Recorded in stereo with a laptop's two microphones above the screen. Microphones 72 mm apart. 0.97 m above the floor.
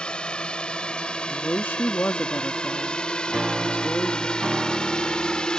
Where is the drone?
15° left (ahead or behind); by 5.6 s 10° left (ahead or behind).